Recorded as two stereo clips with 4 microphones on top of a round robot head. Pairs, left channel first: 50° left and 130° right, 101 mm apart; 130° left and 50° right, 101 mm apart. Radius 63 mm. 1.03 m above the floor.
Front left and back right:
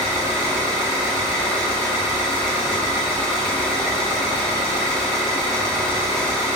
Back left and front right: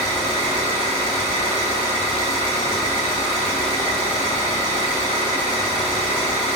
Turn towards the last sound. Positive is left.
turn(degrees=-35)